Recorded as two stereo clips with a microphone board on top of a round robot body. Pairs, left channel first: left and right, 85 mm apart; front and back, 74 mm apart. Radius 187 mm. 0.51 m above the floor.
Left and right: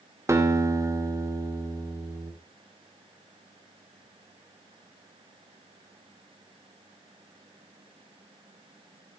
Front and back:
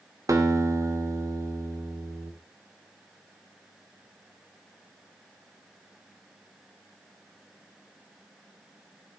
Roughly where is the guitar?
Behind right.